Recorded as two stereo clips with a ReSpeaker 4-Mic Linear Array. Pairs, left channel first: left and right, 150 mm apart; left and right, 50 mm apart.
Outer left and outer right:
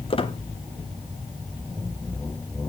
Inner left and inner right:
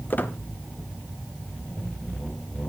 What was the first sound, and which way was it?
A squeak, 35° left (ahead or behind).